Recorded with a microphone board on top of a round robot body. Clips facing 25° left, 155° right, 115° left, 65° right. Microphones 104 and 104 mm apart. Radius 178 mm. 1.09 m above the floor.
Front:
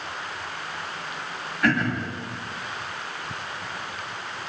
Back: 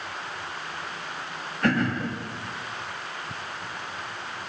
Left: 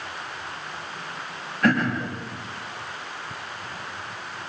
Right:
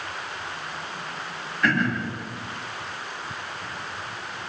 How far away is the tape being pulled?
No tape being pulled in this recording.